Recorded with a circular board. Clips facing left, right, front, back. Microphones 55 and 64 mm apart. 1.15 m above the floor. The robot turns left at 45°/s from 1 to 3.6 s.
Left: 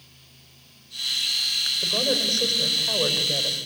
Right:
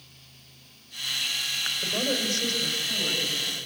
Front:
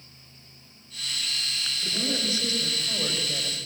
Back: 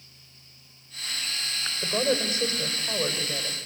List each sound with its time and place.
1.8 s a woman speaking: 160° left, 5.5 m; by 3.7 s 80° left, 5.5 m